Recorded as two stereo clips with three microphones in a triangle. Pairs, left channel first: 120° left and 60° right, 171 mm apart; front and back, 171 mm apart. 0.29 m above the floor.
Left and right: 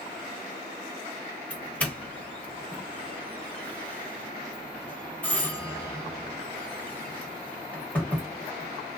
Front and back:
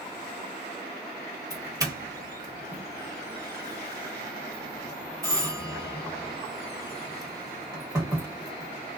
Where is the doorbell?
175° right, 1.4 m.